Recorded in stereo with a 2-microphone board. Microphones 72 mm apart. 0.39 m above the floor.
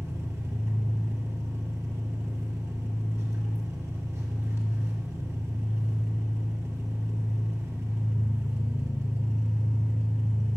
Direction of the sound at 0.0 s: 40° right (ahead or behind).